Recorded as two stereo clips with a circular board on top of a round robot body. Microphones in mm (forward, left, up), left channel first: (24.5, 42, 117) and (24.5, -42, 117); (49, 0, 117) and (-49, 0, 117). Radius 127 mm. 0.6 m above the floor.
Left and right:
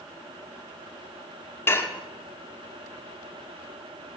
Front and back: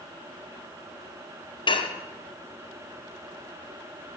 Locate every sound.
1.7 s dishes clattering: 30° left, 1.0 m